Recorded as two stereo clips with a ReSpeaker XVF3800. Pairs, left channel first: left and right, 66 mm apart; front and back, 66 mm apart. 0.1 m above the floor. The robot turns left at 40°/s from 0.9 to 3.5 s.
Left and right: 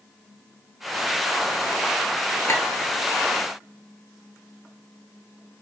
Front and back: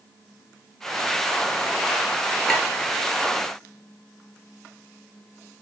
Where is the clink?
80° left, 1.4 m; by 2.6 s 75° left, 1.4 m.